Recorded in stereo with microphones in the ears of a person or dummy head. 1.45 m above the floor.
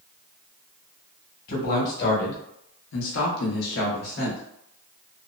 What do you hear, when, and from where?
1.5 s a man speaking: 45° left (ahead or behind), 1.4 m; by 4.4 s 55° left (ahead or behind), 1.1 m